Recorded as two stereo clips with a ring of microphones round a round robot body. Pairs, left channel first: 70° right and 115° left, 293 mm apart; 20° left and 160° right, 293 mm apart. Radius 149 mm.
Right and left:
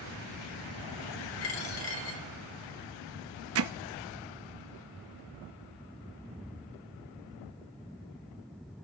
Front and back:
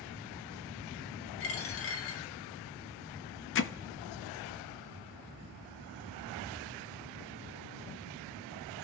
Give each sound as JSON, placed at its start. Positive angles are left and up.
{"t": 1.4, "sound": "a dropped coin", "azimuth_deg": -25, "distance_m": 2.0}
{"t": 3.5, "sound": "hammering", "azimuth_deg": 70, "distance_m": 0.8}